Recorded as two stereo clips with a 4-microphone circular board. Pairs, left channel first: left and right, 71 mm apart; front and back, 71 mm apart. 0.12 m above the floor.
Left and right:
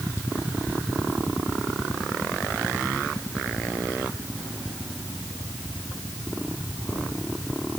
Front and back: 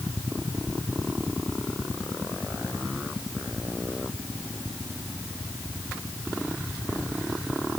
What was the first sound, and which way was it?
Only background noise.